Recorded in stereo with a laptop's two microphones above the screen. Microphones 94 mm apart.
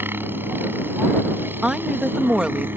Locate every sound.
0.0 s a helicopter: 20° right (ahead or behind)
1.6 s a woman speaking: 10° right (ahead or behind)